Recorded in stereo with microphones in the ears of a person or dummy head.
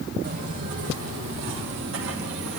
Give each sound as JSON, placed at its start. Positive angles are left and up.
{"t": 0.2, "sound": "footsteps", "side_deg": -55, "distance_m": 3.5}